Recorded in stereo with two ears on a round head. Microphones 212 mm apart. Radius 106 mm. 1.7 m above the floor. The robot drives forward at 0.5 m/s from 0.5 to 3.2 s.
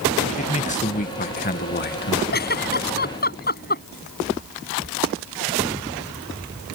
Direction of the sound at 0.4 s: 30° left (ahead or behind).